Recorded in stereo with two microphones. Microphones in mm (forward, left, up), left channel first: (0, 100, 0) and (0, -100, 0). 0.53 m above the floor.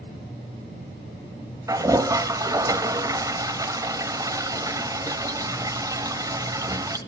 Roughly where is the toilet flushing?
Centre.